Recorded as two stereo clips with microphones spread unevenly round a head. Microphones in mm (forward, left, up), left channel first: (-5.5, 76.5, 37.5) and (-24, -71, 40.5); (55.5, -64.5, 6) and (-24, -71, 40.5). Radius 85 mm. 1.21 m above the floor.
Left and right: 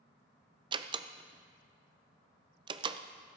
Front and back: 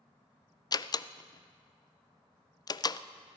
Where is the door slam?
35° right, 0.5 m.